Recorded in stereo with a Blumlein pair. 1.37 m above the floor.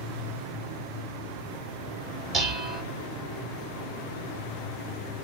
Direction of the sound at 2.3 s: 15° right.